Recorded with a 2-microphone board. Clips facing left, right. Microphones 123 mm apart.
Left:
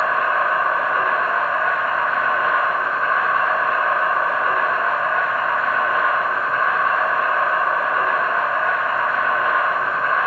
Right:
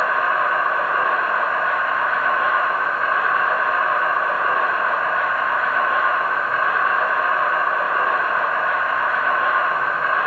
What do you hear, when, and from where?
0.0 s an insect: 45° left (ahead or behind), 2.0 m